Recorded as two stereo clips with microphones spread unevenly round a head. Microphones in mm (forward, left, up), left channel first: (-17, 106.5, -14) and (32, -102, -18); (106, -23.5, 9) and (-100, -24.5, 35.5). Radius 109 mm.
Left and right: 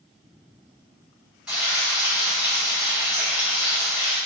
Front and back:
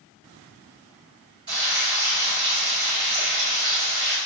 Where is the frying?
165° right, 1.7 m.